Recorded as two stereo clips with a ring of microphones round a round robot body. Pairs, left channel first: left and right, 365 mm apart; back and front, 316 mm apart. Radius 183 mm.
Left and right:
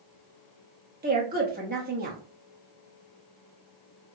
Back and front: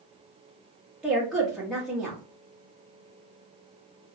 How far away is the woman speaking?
About 1.0 m.